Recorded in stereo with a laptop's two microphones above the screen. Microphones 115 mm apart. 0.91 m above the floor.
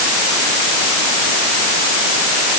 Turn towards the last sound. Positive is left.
No sound to turn to.